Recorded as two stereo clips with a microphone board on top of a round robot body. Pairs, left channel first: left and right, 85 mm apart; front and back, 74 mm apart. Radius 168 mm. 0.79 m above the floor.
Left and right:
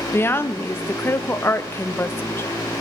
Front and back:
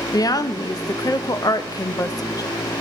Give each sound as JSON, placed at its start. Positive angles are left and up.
{"t": 0.1, "sound": "a woman speaking", "azimuth_deg": 30, "distance_m": 0.8}